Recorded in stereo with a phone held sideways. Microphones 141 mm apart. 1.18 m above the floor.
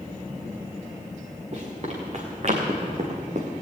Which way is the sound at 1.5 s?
50° right (ahead or behind).